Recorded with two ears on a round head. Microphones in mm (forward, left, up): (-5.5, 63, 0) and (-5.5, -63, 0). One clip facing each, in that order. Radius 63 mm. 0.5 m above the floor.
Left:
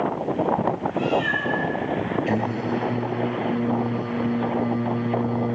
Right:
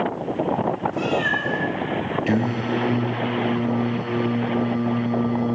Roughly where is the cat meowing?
Right.